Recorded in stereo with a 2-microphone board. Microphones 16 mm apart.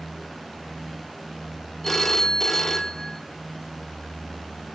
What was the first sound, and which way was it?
A phone ringing, 20° left (ahead or behind).